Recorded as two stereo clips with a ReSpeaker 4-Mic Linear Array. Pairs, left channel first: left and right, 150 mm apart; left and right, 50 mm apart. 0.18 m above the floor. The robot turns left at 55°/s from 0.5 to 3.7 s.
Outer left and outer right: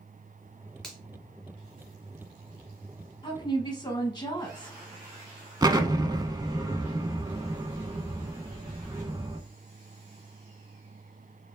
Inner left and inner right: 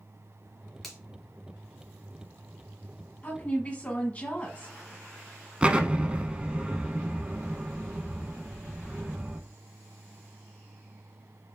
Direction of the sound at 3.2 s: 30° left (ahead or behind).